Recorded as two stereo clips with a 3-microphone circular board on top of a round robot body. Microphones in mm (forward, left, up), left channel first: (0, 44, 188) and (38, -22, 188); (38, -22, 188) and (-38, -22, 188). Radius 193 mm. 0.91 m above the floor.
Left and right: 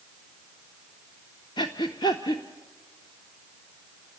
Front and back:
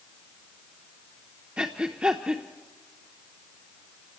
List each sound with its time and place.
1.6 s breathing: 100° left, 0.5 m